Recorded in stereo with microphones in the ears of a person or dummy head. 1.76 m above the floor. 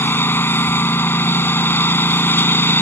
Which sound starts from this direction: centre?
A lawn mower, at 0.0 s.